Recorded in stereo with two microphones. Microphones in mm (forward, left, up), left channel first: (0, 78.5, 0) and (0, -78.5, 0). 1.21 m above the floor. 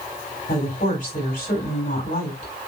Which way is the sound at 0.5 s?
75° left (ahead or behind).